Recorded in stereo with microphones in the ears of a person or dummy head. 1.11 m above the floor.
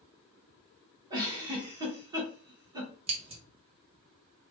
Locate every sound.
1.1 s a giggle: 20° right (ahead or behind), 1.0 m
3.1 s scissors: 25° right (ahead or behind), 0.9 m